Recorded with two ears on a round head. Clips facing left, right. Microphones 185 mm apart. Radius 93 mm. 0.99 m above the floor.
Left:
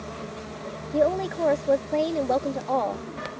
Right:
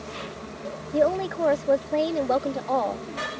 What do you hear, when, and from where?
0.9 s a woman speaking: centre (ahead or behind)